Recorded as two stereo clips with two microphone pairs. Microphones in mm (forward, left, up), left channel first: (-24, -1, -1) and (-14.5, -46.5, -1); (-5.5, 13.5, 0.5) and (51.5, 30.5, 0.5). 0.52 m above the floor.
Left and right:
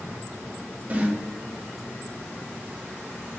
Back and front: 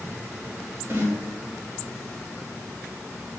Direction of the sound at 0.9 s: 25° right.